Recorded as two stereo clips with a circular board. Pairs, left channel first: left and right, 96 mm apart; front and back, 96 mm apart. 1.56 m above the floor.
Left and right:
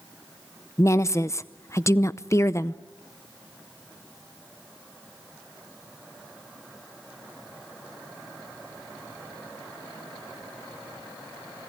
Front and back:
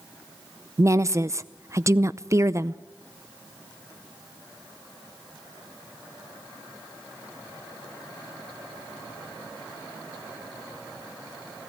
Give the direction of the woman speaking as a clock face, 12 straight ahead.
7 o'clock.